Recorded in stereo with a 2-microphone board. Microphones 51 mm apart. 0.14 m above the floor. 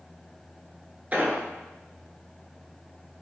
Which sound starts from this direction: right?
An explosion, at 1.1 s.